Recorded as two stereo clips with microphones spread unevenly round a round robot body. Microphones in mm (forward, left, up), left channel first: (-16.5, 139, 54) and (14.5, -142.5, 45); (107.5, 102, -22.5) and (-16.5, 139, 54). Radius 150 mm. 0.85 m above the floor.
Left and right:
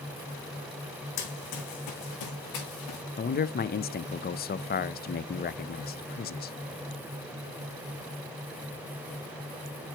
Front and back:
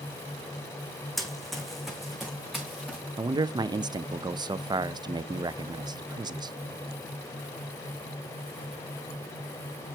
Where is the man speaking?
70° left, 0.5 m.